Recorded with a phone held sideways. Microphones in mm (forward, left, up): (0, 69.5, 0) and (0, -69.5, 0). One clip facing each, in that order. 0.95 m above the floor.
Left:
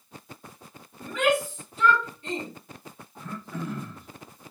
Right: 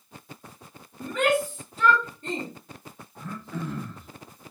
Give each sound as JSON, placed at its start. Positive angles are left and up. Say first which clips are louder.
{"t": 1.0, "sound": "a shout", "louder": "even", "side_deg": -45, "distance_m": 1.3}
{"t": 3.1, "sound": "throat clearing", "louder": "right 1 dB", "side_deg": 0, "distance_m": 0.8}